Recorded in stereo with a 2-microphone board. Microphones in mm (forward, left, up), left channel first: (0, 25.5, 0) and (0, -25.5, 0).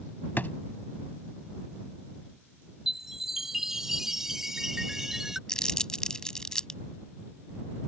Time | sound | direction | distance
0.4 | a drawer | 40° left (ahead or behind) | ?
2.9 | a chime | 10° right (ahead or behind) | ?
5.5 | crumpling | 15° left (ahead or behind) | ?